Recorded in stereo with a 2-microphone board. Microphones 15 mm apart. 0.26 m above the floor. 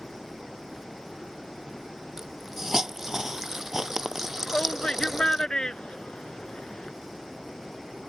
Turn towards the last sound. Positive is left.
turn(degrees=65)  # may be behind; listen again after turning